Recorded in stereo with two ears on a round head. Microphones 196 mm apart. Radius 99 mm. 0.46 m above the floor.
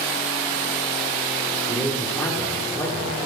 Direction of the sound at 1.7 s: 15° left (ahead or behind).